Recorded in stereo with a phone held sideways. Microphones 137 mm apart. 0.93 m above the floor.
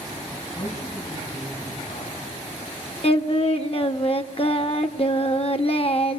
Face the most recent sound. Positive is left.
turn(degrees=45)  # may be behind; listen again after turning